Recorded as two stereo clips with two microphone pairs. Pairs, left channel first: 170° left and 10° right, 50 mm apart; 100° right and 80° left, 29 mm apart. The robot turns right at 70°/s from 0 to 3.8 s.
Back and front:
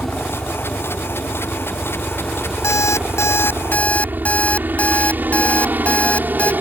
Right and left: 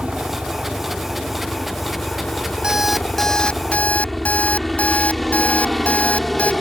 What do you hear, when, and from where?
0.0 s a helicopter: 80° left; by 6.6 s 15° right
2.6 s an alarm clock: 145° left; by 6.5 s 135° right